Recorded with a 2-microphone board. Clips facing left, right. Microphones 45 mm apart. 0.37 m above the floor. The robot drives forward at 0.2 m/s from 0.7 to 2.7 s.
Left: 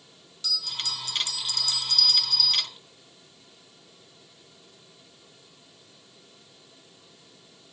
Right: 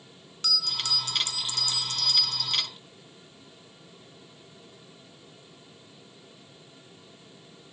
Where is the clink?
No clink in this recording.